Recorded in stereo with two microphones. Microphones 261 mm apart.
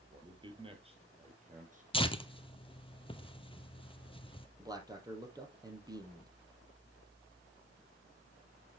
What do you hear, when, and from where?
0.1 s a man speaking: 15° right (ahead or behind), 2.5 m; by 1.8 s 30° right (ahead or behind), 3 m
1.9 s tearing paper: 20° left (ahead or behind), 0.9 m
4.6 s a man speaking: 15° right (ahead or behind), 3.5 m